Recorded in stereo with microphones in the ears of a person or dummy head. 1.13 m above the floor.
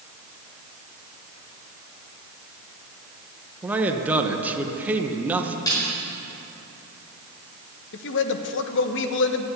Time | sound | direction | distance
3.6 | a man speaking | 10° right (ahead or behind) | 1.1 m
5.7 | a snare drum | 20° left (ahead or behind) | 5 m
7.9 | a man speaking | 60° left (ahead or behind) | 1.0 m